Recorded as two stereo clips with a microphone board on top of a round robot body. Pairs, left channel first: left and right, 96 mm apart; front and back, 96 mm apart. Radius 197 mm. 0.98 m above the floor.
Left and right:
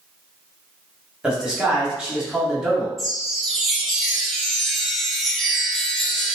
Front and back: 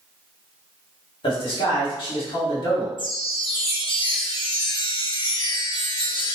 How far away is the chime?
About 0.9 m.